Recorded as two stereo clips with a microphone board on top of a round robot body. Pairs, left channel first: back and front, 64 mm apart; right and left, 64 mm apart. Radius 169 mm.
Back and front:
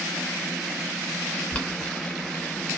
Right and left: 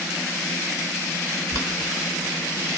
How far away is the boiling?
About 1.6 m.